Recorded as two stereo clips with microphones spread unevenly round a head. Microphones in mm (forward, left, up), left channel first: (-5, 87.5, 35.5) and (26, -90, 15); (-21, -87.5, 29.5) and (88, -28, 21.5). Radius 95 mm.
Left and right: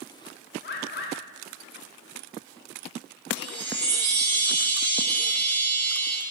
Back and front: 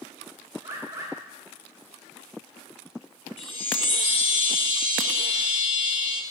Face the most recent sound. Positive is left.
turn(degrees=-105)